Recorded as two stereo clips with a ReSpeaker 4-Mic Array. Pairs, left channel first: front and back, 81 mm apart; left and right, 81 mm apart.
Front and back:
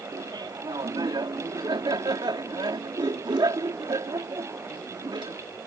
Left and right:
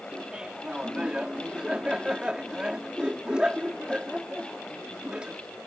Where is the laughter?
170° right.